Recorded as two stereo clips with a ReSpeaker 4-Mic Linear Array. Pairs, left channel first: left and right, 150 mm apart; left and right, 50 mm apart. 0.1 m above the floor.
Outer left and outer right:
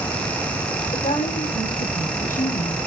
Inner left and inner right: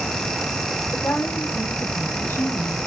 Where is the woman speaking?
70° left (ahead or behind), 5.5 m; by 2.8 s 55° left (ahead or behind), 3 m.